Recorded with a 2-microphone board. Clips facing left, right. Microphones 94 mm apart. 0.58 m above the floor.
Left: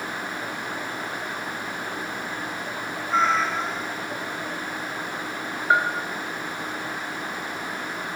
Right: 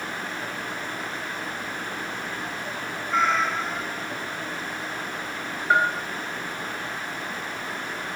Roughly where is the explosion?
No explosion in this recording.